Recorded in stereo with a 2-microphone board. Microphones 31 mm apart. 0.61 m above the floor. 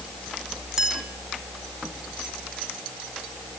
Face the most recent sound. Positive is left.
turn(degrees=-15)  # may be behind; listen again after turning